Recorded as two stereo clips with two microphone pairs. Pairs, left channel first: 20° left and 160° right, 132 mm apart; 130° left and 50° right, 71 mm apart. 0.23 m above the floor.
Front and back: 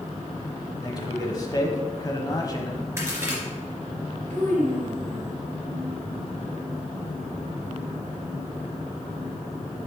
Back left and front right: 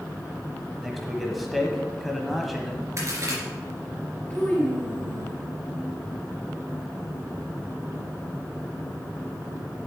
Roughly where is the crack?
Right.